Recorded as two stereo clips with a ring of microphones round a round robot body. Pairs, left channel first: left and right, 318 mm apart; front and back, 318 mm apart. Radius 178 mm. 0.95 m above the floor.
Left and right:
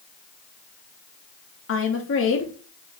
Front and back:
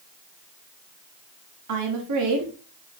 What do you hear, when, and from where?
1.7 s a woman speaking: 140° left, 1.2 m